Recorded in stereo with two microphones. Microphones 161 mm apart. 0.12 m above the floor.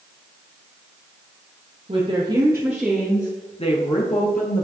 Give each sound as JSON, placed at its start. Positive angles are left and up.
{"t": 1.9, "sound": "a woman speaking", "side_deg": -40, "distance_m": 2.0}